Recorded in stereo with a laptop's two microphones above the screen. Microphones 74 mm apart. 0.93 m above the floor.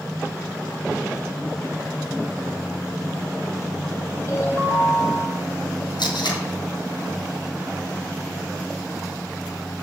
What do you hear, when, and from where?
4.3 s a ringtone: 40° left (ahead or behind), 5 m
6.0 s tape being pulled: 85° left, 5 m